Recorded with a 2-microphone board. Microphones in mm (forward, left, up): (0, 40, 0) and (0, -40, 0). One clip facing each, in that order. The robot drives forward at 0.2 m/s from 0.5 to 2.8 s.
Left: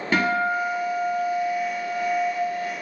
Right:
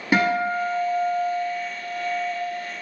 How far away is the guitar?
About 1.1 m.